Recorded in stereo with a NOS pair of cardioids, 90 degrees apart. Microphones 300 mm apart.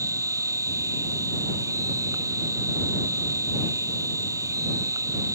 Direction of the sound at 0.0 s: 10° right.